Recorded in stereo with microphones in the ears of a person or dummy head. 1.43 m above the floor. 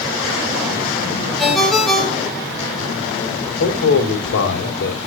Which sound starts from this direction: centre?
A ringtone, at 1.4 s.